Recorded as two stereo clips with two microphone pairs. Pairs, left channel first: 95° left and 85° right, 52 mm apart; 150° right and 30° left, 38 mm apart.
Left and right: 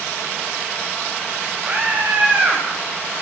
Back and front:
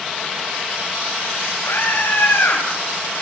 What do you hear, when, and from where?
1.6 s a scream: 155° right, 5 m; by 2.6 s 150° right, 5.5 m